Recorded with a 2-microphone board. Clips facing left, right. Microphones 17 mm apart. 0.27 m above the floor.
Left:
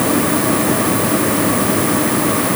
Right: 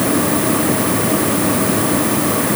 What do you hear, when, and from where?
Only background noise.